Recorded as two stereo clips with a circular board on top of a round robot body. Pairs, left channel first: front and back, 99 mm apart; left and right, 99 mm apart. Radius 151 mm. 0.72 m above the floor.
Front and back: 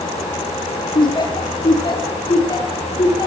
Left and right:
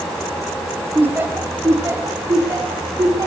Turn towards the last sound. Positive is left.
turn(degrees=-40)